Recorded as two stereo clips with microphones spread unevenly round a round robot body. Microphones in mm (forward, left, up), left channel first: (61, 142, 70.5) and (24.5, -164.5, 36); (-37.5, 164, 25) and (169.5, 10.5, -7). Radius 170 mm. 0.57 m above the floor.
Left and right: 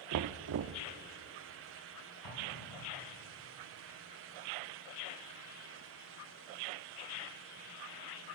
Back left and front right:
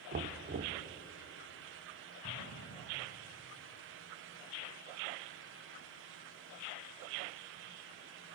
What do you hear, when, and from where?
0.1 s knocking: 80° right, 0.8 m
2.2 s an explosion: 105° left, 5 m